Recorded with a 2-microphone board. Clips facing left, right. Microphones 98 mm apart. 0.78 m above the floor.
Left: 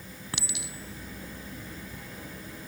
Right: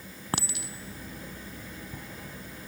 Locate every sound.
0.3 s a clink: 45° right (ahead or behind)